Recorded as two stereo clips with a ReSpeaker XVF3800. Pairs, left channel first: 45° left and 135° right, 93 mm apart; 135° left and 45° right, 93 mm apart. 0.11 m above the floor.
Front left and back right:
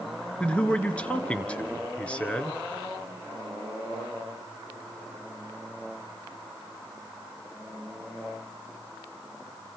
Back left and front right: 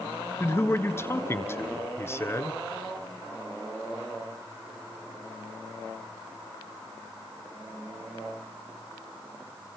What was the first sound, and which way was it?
A man speaking, 110° left.